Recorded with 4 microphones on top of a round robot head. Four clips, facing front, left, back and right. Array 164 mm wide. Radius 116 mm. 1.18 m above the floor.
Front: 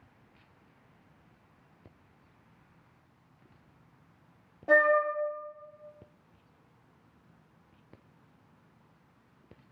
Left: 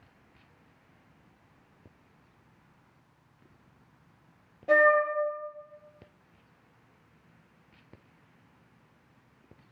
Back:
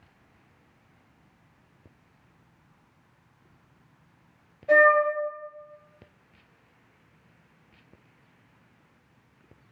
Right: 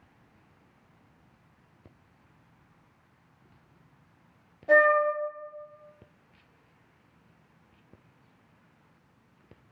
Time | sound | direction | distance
4.7 | a flute | 15° left | 1.3 m